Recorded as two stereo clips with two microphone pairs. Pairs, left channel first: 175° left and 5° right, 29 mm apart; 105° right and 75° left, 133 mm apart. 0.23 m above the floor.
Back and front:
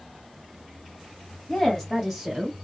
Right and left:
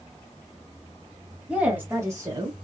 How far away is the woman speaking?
About 1.0 m.